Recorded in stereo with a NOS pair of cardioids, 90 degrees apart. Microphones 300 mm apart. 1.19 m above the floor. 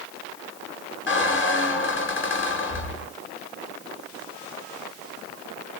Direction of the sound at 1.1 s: 40° left.